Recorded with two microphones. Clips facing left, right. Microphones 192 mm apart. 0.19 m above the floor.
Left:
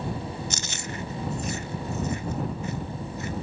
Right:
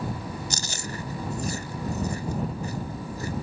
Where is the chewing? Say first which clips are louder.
Even; 40° right (ahead or behind).